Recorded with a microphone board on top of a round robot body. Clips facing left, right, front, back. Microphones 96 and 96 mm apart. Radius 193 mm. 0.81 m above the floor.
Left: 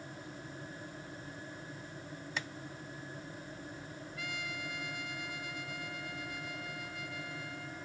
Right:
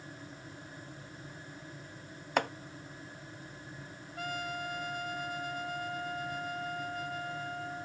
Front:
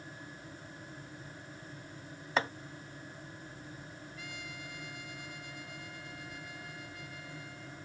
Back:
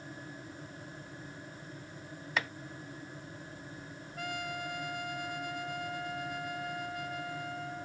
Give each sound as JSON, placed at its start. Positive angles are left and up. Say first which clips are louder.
{"t": 2.4, "sound": "chopping", "louder": "right 12 dB, front 4 dB", "azimuth_deg": -60}
{"t": 4.2, "sound": "a trumpet", "louder": "right 7 dB, back 12 dB", "azimuth_deg": -140}